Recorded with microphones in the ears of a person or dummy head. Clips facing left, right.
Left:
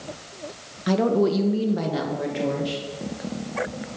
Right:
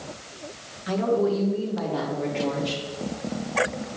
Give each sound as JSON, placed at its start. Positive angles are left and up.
{"t": 0.9, "sound": "a woman speaking", "side_deg": 55, "distance_m": 1.0}